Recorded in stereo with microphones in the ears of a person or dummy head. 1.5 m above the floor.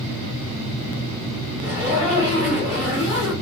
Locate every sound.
1.6 s a zipper: 35° left (ahead or behind), 2 m